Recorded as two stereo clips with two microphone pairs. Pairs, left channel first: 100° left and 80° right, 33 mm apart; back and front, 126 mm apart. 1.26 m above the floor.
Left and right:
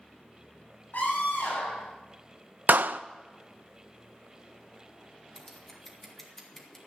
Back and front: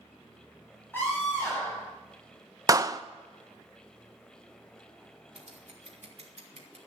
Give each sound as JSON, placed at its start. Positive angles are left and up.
{"t": 0.9, "sound": "a scream", "azimuth_deg": 105, "distance_m": 5.5}
{"t": 2.7, "sound": "a clap", "azimuth_deg": -60, "distance_m": 0.6}
{"t": 5.3, "sound": "scissors", "azimuth_deg": 20, "distance_m": 2.5}